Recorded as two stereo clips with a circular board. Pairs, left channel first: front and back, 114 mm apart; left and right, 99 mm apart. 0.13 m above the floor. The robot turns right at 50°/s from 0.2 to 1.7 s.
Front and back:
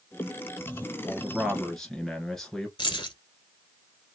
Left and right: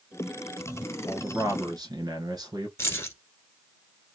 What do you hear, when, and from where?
1.1 s a man speaking: 120° right, 1.4 m; by 2.7 s 85° right, 1.4 m
2.8 s keys jangling: 35° left, 1.2 m